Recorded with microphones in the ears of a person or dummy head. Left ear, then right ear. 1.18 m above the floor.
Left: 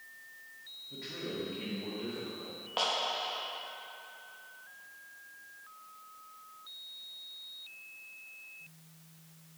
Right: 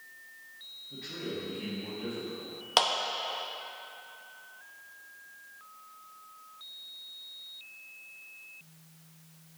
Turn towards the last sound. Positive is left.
turn(degrees=-70)  # may be behind; listen again after turning